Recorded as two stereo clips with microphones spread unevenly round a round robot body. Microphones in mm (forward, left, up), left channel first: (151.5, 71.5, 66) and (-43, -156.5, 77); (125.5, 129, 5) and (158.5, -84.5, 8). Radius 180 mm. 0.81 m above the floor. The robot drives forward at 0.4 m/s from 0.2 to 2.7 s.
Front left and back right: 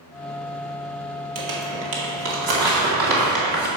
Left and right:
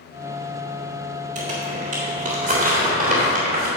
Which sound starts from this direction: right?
Crumpling, at 1.4 s.